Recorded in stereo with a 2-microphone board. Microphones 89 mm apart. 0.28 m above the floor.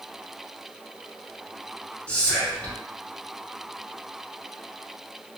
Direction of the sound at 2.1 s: 15° left (ahead or behind).